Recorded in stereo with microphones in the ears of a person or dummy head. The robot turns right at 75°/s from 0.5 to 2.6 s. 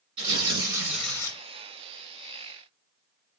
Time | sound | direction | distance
0.2 | tearing paper | 40° right | 1.9 m